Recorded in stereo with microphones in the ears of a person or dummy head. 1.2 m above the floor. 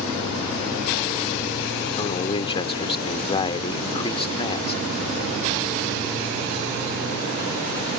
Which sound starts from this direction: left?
A man speaking, at 2.0 s.